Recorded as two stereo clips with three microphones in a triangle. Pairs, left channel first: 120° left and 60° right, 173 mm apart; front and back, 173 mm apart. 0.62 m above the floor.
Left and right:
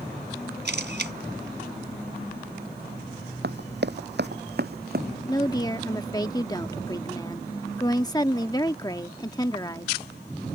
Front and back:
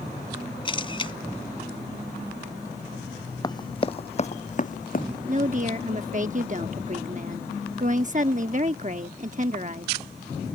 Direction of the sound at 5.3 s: Straight behind.